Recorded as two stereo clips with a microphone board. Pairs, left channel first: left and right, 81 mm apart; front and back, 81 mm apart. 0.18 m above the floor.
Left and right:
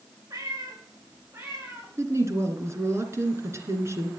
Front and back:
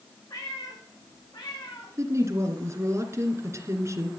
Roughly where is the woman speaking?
Behind right.